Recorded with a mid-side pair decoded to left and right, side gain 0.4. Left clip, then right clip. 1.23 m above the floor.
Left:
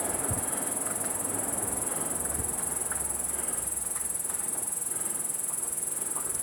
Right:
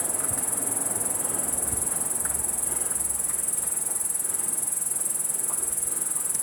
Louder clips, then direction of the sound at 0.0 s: Right 1 dB; 40° right.